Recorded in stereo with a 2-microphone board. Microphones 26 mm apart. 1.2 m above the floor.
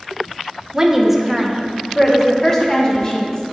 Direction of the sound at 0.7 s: 15° right (ahead or behind).